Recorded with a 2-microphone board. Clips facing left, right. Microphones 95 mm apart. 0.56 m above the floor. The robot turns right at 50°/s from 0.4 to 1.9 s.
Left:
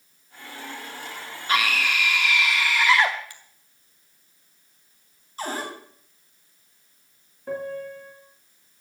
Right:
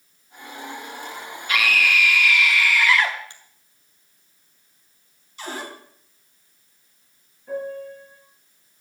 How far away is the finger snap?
About 2 m.